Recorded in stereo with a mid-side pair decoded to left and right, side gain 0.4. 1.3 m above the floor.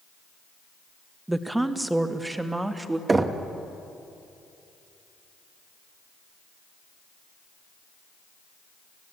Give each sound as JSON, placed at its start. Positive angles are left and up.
{"t": 1.3, "sound": "a woman speaking", "azimuth_deg": -10, "distance_m": 1.6}
{"t": 3.1, "sound": "knocking", "azimuth_deg": -35, "distance_m": 1.7}